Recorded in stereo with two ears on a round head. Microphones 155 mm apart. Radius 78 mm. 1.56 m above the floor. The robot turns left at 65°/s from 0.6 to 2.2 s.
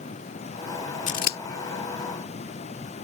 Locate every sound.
1.1 s scissors: 45° left (ahead or behind); by 1.4 s 60° left (ahead or behind)